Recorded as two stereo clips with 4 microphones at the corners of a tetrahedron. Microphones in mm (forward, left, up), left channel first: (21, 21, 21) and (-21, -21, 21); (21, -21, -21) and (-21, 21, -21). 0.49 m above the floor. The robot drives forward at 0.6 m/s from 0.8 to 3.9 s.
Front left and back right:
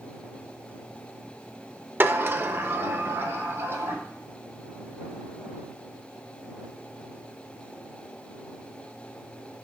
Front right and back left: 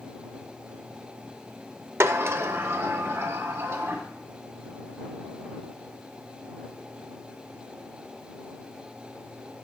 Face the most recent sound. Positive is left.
turn(degrees=180)